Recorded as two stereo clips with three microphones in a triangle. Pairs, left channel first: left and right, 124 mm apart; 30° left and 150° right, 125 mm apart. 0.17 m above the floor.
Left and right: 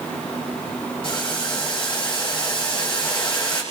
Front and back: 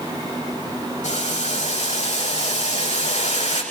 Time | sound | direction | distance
1.0 | boiling | 45° left | 7 m